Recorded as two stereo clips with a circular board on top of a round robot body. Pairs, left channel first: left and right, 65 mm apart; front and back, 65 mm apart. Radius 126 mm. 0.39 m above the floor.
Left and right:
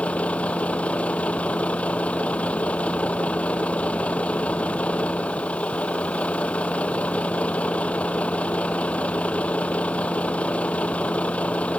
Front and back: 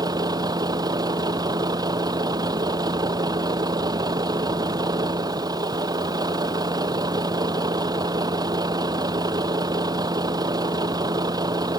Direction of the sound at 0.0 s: 160° left.